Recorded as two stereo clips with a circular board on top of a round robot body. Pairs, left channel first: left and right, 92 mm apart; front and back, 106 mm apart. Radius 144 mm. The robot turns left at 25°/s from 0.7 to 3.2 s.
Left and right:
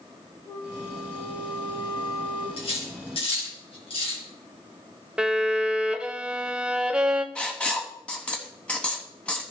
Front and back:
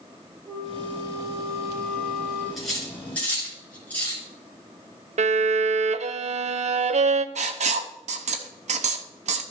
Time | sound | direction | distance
0.5 | a flute | 125° left | 4 m
2.6 | cutlery clinking | 90° left | 4 m
5.2 | a violin | 170° right | 0.6 m
7.3 | writing | 170° left | 0.8 m